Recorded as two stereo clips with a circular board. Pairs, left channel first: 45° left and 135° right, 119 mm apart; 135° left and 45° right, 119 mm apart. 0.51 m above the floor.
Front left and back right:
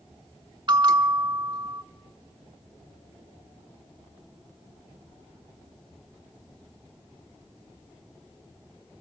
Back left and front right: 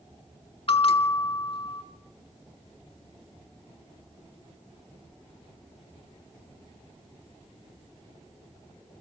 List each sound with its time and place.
0.7 s a bell: 175° left, 0.9 m